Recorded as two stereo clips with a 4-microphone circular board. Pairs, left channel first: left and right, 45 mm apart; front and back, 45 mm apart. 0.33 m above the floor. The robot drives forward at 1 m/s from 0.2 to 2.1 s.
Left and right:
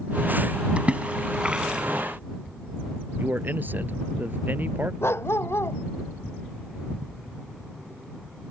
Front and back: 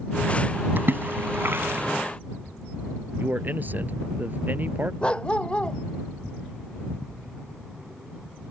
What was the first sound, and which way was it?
A splash, 145° right.